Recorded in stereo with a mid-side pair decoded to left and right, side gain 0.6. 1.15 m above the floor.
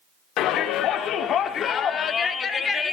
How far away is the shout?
About 3.5 m.